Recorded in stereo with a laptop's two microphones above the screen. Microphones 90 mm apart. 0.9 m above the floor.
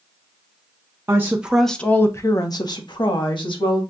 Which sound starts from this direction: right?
A woman speaking, at 1.1 s.